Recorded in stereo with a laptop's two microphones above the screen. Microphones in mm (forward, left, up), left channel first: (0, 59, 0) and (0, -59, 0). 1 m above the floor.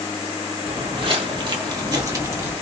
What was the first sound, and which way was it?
Footsteps, 55° right (ahead or behind).